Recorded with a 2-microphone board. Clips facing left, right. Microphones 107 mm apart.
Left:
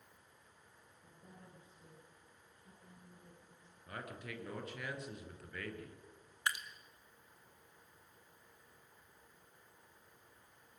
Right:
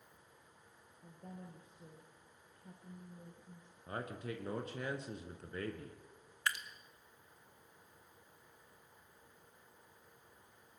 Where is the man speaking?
30° right (ahead or behind), 2.5 m.